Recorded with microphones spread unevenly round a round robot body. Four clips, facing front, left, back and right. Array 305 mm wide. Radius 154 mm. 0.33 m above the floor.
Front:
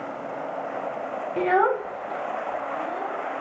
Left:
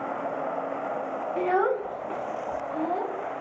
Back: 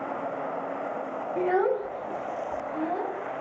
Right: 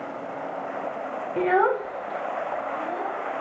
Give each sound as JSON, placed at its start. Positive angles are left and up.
{"t": 1.4, "sound": "a child speaking", "azimuth_deg": -65, "distance_m": 0.7}